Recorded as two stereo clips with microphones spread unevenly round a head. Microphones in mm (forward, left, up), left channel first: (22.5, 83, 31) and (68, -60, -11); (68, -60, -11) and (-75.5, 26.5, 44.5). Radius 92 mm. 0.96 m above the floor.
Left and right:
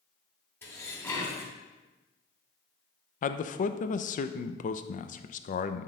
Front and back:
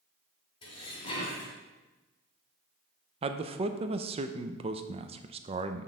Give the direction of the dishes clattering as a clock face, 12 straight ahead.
11 o'clock.